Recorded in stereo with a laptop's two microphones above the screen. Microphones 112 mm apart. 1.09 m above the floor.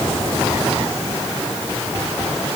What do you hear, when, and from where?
Only background noise.